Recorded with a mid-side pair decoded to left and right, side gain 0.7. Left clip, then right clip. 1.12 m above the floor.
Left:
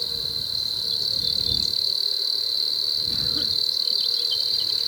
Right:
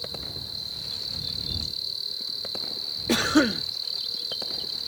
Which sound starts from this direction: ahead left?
An insect, at 0.0 s.